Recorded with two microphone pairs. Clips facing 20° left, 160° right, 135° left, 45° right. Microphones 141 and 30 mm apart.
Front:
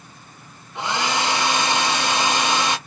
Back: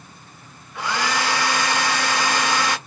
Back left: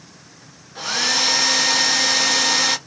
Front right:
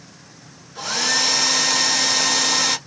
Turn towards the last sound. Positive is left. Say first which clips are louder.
# front 1 dB, back left 1 dB
turn(degrees=70)